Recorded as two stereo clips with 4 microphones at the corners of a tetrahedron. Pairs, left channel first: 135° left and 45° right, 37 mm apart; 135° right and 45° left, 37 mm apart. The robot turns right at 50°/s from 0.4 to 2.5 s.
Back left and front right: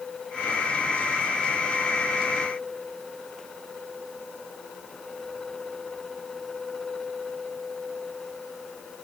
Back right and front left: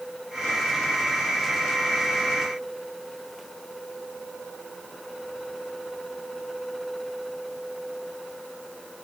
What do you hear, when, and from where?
Only background noise.